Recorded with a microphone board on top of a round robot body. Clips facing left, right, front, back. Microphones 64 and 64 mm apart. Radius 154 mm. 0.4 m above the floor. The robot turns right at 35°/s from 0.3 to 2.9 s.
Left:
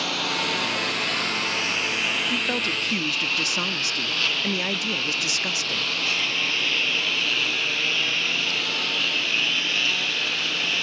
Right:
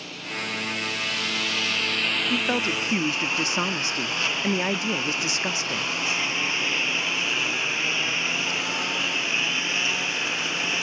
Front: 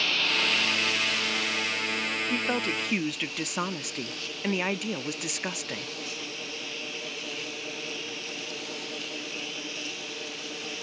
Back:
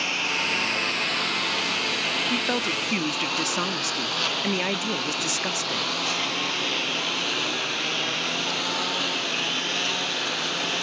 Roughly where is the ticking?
I don't hear ticking.